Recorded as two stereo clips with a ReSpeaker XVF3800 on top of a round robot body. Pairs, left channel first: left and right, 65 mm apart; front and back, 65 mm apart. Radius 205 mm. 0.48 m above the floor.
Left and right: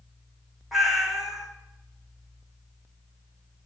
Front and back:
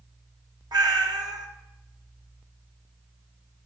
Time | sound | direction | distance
0.7 | a cat meowing | 175° right | 1.1 m